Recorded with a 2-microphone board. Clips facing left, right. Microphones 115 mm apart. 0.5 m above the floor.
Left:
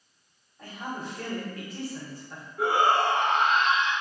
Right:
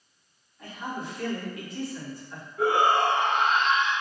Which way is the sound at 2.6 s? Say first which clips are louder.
Right 1 dB; 5° right (ahead or behind).